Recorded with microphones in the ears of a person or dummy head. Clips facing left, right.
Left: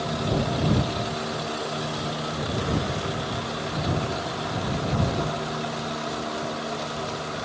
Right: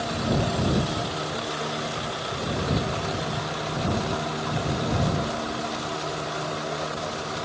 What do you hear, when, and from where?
Only background noise.